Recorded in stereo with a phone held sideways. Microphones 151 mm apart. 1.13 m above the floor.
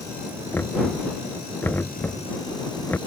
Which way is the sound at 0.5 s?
10° left (ahead or behind).